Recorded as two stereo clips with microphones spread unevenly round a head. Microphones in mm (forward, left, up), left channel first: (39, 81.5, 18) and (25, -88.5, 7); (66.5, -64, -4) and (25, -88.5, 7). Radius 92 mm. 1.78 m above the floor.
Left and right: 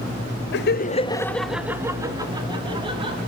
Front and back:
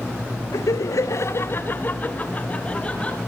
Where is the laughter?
70° left, 1.0 m; by 3.2 s 35° right, 3.5 m.